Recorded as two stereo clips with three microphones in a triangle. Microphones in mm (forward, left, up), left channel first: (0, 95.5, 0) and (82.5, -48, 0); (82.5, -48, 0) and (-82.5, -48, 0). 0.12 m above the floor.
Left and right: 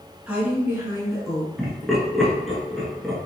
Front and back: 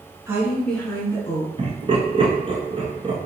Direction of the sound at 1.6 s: 150° right.